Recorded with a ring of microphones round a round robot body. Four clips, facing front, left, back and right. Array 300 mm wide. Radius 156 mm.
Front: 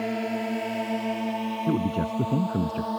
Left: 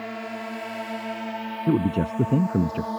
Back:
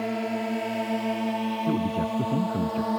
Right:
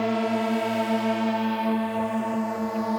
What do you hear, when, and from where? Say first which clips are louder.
0.0 s a drone: right 9 dB, even; 85° right; by 3.0 s 130° right
1.7 s a man speaking: left 2 dB, front 2 dB; 85° left